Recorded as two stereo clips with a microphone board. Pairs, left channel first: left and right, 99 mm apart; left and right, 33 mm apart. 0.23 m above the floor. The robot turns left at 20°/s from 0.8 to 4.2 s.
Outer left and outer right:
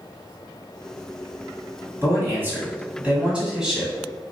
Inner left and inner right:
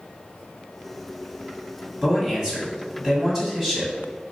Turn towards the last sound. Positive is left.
turn(degrees=180)